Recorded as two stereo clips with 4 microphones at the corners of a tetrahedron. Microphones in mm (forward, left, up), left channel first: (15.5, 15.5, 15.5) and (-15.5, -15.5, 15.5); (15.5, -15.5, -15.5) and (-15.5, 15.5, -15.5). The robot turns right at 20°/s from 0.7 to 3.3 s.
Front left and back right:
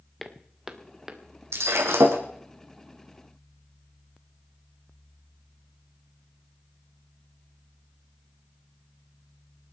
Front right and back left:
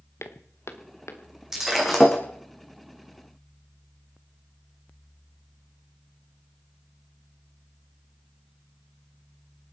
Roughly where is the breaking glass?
Behind right.